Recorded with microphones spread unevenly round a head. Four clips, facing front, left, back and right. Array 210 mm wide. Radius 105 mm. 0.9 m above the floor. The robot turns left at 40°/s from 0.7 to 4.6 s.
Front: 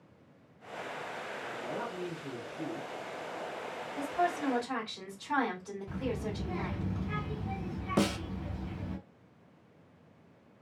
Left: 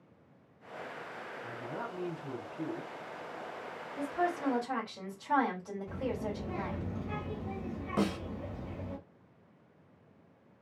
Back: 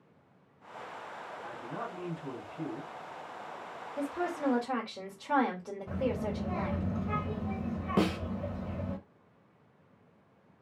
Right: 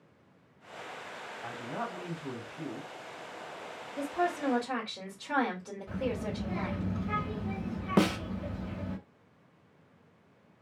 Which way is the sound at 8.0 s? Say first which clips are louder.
Right 5 dB, back 1 dB; 85° right.